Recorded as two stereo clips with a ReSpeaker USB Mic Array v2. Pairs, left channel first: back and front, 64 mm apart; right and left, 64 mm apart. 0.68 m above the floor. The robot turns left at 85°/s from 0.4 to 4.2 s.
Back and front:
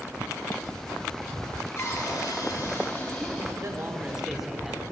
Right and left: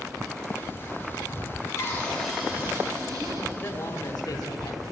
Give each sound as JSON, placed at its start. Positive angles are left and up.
{"t": 1.8, "sound": "a cupboard door", "azimuth_deg": -135, "distance_m": 3.5}
{"t": 3.6, "sound": "a man speaking", "azimuth_deg": -35, "distance_m": 1.4}